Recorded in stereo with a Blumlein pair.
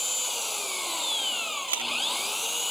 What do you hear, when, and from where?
0.0 s an engine running: 5° left
1.7 s a camera shutter: 70° right